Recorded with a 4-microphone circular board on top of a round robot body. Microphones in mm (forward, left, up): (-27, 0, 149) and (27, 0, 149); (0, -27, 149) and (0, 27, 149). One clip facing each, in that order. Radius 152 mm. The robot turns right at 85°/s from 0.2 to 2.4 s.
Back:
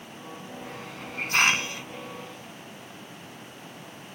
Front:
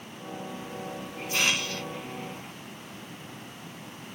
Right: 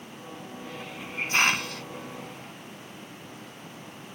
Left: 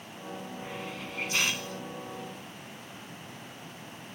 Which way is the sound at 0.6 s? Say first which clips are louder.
Front 2 dB, right 1 dB; 155° left.